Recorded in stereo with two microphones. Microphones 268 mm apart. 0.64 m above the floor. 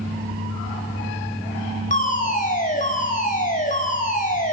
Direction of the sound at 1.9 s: 30° left (ahead or behind).